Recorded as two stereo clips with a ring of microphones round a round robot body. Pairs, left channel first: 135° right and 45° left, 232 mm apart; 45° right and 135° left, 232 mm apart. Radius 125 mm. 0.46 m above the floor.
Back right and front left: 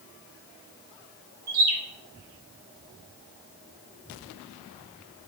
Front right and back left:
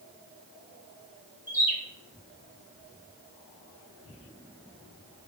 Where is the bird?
50° left, 0.9 m.